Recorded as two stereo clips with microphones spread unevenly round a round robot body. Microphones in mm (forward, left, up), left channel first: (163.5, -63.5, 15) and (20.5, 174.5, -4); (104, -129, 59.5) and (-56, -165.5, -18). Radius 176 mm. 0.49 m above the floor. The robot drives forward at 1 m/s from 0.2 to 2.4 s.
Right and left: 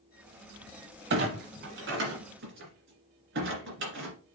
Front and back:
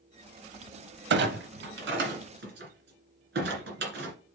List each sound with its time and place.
1.1 s a clunk: 175° right, 0.7 m; by 4.2 s straight behind, 2.0 m